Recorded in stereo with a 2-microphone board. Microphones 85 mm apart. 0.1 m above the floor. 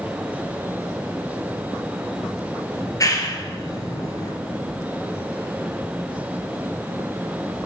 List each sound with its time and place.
2.8 s a clap: 40° left (ahead or behind), 2.0 m